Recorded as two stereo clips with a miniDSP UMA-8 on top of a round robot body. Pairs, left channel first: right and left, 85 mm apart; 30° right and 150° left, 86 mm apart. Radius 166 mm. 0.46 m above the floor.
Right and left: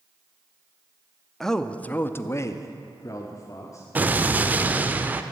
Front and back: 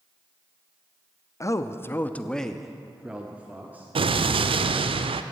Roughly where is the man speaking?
Ahead.